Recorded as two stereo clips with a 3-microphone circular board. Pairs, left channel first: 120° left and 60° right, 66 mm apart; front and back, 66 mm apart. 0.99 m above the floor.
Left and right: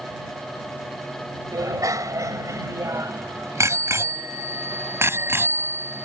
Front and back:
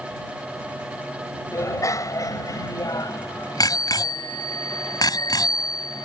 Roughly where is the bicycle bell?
Ahead right.